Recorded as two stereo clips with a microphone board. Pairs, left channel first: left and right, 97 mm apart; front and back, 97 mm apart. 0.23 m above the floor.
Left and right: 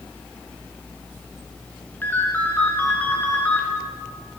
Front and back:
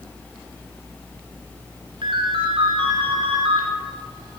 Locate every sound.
2.0 s a ringtone: 160° left, 1.9 m